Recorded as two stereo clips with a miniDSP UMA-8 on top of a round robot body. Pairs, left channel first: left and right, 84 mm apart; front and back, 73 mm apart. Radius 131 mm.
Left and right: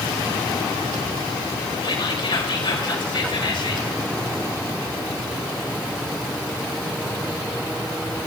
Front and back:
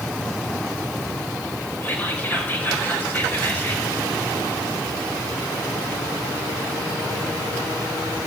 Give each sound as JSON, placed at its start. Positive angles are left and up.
{"t": 1.8, "sound": "whispering", "azimuth_deg": 65, "distance_m": 4.0}